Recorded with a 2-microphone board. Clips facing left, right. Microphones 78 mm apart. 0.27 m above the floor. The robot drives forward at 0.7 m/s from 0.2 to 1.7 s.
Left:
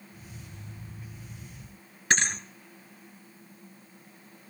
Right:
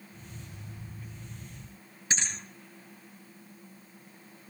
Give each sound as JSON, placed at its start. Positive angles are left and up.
{"t": 2.1, "sound": "a thud", "side_deg": 75, "distance_m": 1.5}